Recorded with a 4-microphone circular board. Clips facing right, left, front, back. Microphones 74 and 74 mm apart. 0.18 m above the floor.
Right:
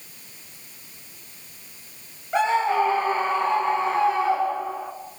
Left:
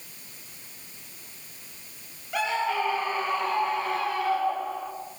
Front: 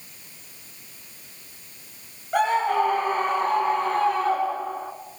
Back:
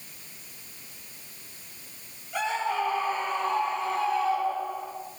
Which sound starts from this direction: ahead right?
A scream, at 2.3 s.